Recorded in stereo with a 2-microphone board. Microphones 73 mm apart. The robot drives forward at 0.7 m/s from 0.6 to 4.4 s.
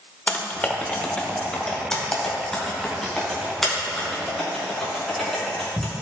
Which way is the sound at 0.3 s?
20° left (ahead or behind).